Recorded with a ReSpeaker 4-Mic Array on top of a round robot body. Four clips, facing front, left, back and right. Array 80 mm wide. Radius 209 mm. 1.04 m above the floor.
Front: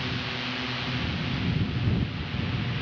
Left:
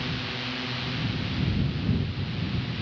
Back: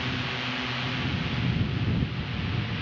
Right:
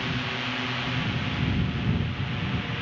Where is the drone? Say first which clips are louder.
Right 3 dB, back 1 dB; 115° right; by 2.8 s 90° right.